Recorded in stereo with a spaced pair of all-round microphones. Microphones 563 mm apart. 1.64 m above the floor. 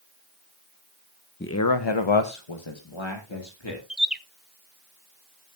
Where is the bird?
Centre (ahead or behind), 0.6 m.